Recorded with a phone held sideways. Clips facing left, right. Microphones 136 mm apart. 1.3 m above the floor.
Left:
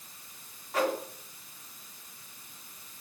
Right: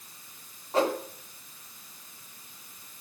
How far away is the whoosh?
About 2 m.